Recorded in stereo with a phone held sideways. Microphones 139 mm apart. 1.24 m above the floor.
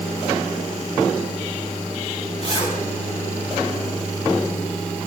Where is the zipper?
45° left (ahead or behind), 9.5 m.